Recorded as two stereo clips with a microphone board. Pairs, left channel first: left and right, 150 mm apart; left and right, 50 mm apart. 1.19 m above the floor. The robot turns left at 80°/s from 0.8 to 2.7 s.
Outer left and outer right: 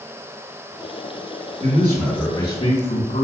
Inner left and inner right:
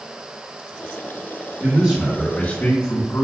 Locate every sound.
1.6 s a man speaking: 145° right, 3.5 m; by 3.2 s 130° left, 3.5 m